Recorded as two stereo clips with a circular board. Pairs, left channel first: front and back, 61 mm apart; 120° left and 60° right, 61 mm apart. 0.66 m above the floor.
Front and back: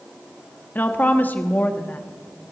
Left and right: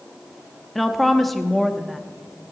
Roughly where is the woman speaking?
Ahead left.